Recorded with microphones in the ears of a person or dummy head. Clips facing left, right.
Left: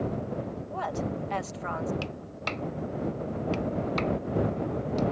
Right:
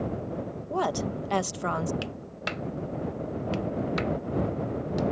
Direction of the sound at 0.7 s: 55° right (ahead or behind).